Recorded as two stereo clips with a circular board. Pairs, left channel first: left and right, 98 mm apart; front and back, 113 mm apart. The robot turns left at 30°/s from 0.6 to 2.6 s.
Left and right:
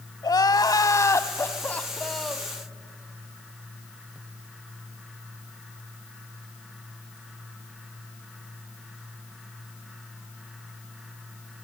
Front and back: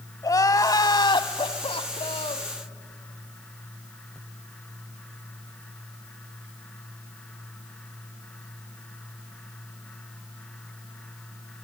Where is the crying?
50° left, 1.1 m; by 2.5 s 5° right, 1.1 m.